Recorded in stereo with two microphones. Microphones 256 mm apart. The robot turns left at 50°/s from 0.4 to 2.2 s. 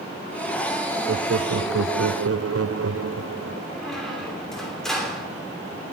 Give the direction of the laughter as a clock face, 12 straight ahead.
2 o'clock.